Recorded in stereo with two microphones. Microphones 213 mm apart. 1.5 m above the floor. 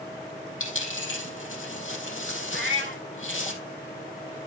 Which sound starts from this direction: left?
A dropped coin, at 0.6 s.